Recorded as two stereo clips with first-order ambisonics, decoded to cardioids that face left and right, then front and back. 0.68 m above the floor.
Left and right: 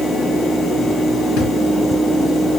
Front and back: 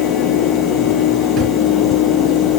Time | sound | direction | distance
1.4 | a drawer | 120° left | 6 m